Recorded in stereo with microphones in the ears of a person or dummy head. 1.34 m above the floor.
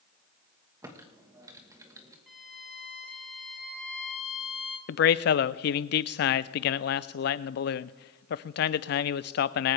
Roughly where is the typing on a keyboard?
Centre.